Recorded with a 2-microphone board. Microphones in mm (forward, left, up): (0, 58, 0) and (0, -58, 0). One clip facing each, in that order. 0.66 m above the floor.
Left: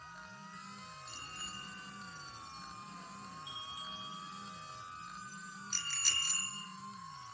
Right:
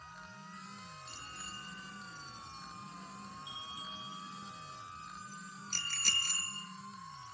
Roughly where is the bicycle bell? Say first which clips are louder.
Even; centre.